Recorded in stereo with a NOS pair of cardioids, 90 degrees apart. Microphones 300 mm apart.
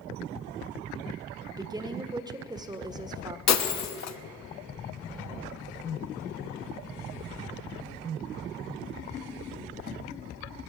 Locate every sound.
1.5 s a woman speaking: 10° right, 1.2 m
3.5 s breaking glass: 55° left, 1.2 m